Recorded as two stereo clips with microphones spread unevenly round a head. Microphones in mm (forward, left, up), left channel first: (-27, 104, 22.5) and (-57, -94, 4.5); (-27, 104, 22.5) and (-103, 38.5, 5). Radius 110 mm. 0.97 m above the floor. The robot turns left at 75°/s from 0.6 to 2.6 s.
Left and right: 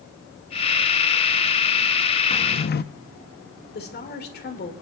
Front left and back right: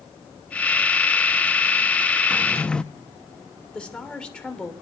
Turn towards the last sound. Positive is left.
turn(degrees=120)